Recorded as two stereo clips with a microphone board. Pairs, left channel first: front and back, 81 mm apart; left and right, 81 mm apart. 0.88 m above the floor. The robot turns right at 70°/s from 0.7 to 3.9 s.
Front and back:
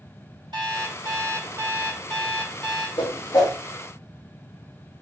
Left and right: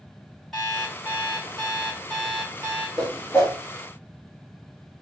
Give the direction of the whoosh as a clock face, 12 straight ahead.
12 o'clock.